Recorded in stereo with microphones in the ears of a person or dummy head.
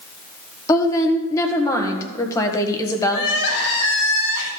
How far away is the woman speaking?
About 1.5 m.